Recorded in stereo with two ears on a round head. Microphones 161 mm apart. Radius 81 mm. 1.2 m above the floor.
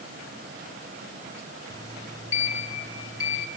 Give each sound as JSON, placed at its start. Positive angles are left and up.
{"t": 1.7, "sound": "a sliding door", "side_deg": 20, "distance_m": 3.0}